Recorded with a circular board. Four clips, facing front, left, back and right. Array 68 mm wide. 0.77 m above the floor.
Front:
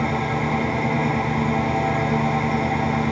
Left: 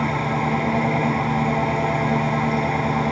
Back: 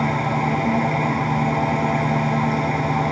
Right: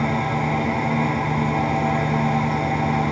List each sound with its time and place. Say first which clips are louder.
0.0 s an engine running: even, back 2 dB; 155° left, 2.0 m